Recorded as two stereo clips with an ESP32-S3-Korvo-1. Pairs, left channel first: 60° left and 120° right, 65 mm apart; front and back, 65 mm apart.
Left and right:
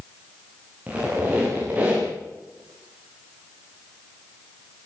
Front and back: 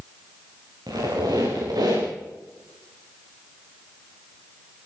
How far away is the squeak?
About 9 m.